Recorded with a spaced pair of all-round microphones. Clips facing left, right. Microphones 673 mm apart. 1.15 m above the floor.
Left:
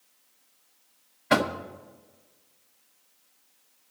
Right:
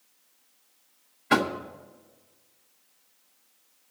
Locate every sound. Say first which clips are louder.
1.3 s knocking: even; 10° left (ahead or behind), 0.6 m